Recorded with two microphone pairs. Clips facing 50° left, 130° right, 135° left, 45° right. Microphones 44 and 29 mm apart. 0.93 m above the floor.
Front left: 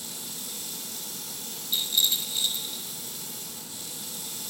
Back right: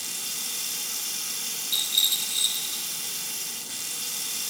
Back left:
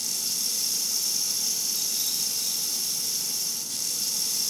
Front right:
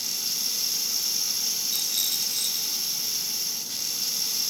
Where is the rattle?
50° right, 5.5 m.